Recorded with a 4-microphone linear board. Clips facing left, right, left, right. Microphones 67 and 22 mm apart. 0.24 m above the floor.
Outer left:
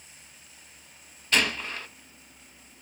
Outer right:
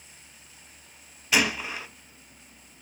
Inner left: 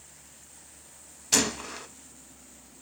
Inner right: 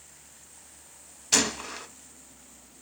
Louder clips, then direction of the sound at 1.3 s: Outer right 1 dB, inner right 1 dB; 10° right (ahead or behind).